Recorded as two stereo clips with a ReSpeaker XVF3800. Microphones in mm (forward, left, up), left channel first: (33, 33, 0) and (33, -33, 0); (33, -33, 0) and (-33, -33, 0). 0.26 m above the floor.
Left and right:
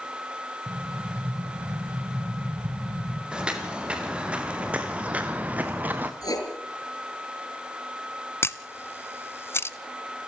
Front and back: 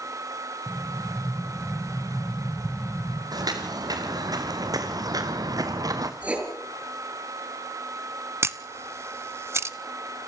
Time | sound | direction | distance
0.7 | an explosion | 105° right | 4 m
3.3 | footsteps | 165° right | 4 m
6.2 | writing | 110° left | 4.5 m
8.4 | a camera shutter | 135° left | 0.8 m